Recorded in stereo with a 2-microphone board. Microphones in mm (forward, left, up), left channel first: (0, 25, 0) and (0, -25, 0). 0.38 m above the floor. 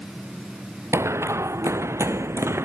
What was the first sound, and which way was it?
Running footsteps, 70° right (ahead or behind).